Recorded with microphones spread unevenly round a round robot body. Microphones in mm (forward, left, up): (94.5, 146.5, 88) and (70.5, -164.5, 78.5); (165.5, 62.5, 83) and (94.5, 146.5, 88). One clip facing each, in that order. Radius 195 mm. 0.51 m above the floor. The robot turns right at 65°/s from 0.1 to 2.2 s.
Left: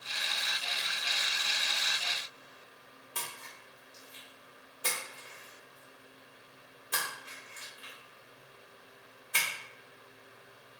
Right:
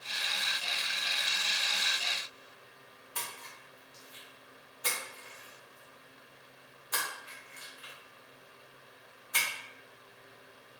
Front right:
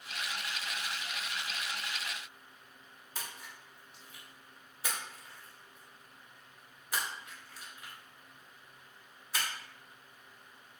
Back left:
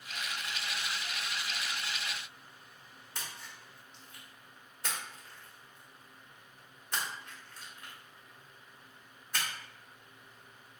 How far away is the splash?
About 1.4 m.